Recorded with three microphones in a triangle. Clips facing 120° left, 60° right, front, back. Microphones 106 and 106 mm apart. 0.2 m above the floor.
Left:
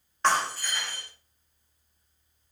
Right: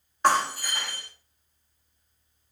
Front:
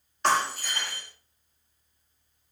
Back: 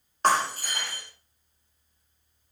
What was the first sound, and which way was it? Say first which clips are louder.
Breaking glass: right 3 dB, back 1 dB; 135° right.